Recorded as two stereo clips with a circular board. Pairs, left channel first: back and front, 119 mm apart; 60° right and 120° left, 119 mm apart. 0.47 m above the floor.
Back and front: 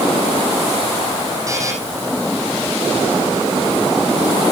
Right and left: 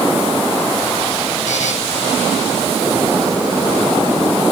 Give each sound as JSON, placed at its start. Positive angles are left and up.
{"t": 1.5, "sound": "a buzzer", "azimuth_deg": -60, "distance_m": 4.5}